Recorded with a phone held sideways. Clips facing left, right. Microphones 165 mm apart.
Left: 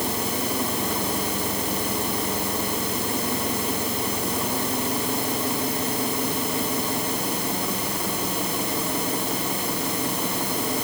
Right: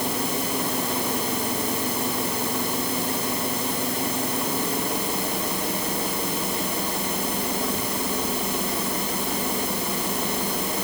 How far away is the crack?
No crack in this recording.